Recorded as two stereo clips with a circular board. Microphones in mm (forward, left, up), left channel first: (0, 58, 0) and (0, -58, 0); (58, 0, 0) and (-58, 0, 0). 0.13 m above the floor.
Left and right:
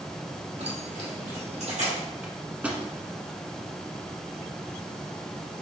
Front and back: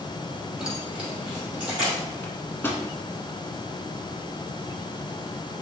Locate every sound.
0.6 s keys jangling: 95° right, 1.7 m; by 2.0 s 100° right, 3 m
2.2 s a microwave: 30° right, 0.9 m